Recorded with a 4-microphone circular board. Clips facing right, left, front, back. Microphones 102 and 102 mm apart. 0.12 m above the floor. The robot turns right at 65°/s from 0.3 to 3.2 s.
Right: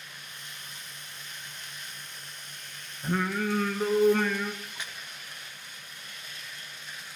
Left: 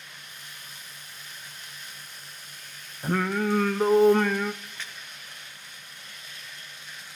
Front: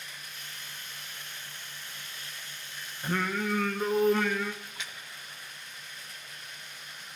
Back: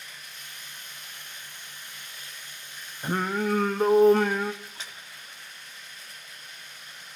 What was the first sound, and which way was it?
Singing, 120° left.